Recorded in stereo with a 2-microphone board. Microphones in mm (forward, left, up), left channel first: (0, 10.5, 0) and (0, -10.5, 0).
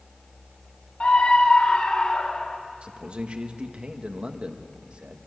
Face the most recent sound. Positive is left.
turn(degrees=-65)  # may be behind; listen again after turning